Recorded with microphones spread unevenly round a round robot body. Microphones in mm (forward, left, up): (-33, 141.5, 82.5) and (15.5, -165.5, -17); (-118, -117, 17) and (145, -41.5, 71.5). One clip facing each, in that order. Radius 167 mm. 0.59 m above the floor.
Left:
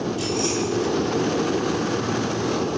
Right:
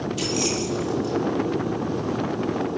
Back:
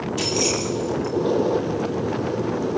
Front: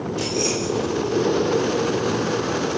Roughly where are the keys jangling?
Behind right.